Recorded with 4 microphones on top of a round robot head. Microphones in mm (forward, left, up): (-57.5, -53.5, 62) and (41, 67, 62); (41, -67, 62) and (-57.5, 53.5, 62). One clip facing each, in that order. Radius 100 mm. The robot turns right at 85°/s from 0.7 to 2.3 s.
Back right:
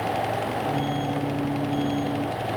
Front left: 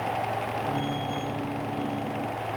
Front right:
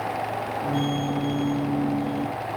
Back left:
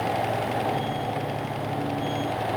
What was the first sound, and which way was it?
Only background noise.